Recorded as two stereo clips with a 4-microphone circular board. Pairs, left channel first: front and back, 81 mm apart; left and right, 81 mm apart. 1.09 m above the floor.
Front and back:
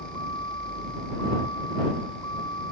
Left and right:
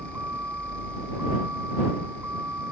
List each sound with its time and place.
0.0 s a vehicle: 25° right